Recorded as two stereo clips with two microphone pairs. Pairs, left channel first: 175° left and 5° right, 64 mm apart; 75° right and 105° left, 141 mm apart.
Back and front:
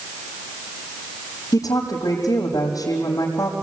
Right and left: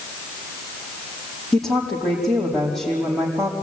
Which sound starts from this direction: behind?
A woman speaking, at 1.5 s.